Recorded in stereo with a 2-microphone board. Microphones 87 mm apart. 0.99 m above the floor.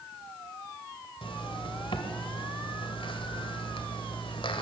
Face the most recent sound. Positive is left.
turn(degrees=80)